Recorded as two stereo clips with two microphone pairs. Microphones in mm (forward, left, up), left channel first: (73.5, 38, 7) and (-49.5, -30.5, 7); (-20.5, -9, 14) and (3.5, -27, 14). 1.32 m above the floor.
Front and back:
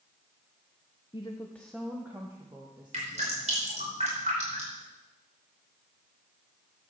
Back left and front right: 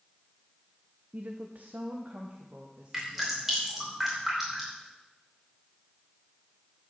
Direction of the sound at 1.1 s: 20° right.